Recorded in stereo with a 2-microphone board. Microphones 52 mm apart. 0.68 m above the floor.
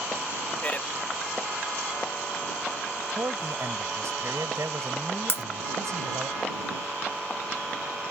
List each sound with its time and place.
0.6 s a man speaking: 30° left (ahead or behind)
3.1 s a man speaking: 75° right (ahead or behind)
5.3 s breaking glass: 50° left (ahead or behind)